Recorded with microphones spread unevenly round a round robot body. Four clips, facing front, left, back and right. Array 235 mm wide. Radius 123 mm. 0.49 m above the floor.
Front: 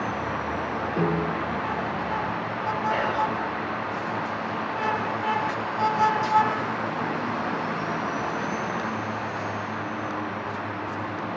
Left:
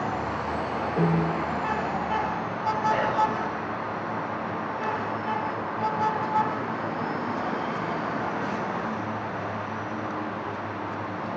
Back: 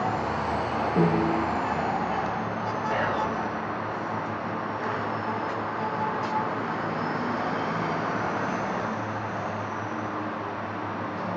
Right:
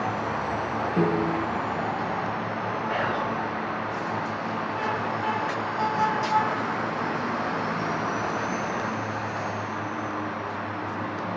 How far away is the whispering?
About 5 m.